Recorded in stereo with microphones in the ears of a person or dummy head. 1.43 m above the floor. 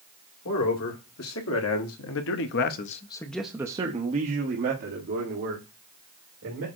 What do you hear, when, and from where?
0.5 s a man speaking: 80° left, 1.8 m; by 6.7 s 60° right (ahead or behind), 2.5 m